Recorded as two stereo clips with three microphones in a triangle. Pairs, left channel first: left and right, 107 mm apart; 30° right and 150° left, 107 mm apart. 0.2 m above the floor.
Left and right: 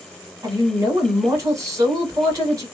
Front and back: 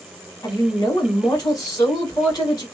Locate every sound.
0.4 s a woman speaking: 55° right, 1.8 m